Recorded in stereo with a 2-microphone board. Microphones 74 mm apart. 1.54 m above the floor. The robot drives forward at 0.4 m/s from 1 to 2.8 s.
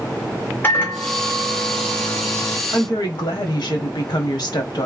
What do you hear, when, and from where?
0.6 s a microwave: 25° left (ahead or behind), 0.9 m; by 2.6 s 45° left (ahead or behind), 0.6 m
2.7 s a woman speaking: 75° left (ahead or behind), 1.0 m